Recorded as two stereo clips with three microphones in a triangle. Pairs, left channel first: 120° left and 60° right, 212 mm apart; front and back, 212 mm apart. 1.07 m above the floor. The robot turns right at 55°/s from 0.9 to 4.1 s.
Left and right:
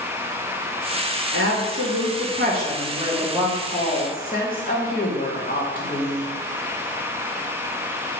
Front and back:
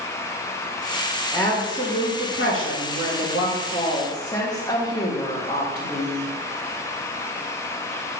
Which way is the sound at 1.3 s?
80° right.